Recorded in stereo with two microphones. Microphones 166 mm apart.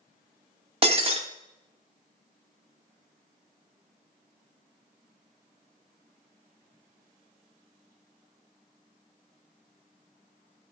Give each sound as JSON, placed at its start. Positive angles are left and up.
{"t": 0.8, "sound": "breaking glass", "side_deg": -40, "distance_m": 1.1}